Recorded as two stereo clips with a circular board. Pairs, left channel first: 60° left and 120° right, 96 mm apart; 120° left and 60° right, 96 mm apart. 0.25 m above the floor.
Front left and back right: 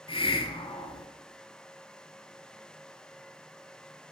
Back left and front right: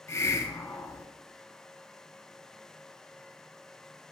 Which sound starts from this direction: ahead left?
A hiss, at 0.1 s.